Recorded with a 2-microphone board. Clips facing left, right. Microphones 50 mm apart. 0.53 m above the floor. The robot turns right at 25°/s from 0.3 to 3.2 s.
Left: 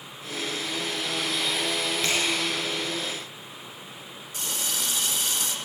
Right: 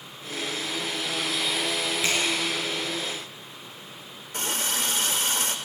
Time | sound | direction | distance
2.0 | a finger snap | 5° right (ahead or behind) | 6 m
4.3 | a running tap | 45° right (ahead or behind) | 1.1 m